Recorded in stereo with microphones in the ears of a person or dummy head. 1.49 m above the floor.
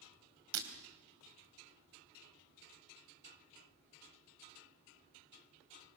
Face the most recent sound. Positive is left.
turn(degrees=-75)  # may be behind; listen again after turning